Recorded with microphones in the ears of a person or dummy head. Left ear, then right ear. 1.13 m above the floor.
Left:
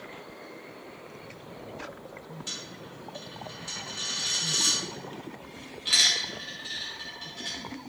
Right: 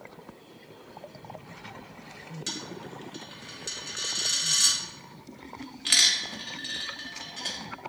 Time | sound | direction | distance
2.5 | a dropped coin | 40° right (ahead or behind) | 0.7 m